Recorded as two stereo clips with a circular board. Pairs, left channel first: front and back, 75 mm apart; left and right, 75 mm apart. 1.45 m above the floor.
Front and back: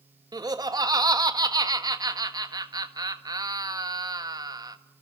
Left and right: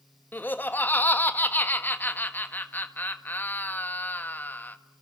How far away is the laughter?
About 1.7 m.